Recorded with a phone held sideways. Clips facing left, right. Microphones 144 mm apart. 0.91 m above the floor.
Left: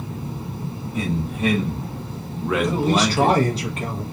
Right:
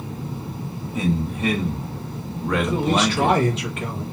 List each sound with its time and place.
0.9 s a man speaking: centre (ahead or behind), 0.8 m; by 3.4 s 5° left (ahead or behind), 1.0 m
2.6 s a man speaking: 35° left (ahead or behind), 0.8 m